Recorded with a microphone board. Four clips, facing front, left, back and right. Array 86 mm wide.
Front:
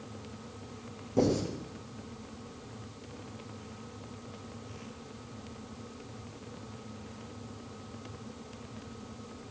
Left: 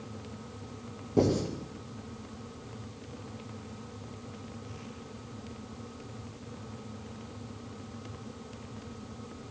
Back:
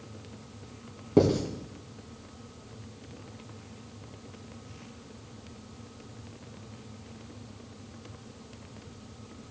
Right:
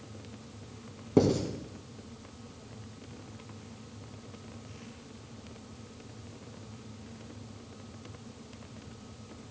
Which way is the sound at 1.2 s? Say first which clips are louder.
Right 1 dB, back 5 dB; 135° right.